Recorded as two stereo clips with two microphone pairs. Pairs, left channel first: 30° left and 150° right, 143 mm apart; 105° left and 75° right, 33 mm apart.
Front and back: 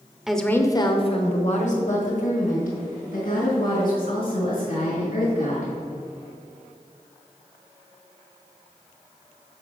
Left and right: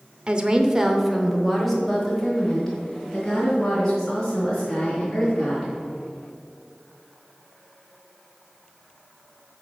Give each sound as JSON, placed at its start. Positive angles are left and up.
{"t": 0.3, "sound": "a woman speaking", "azimuth_deg": -70, "distance_m": 0.9}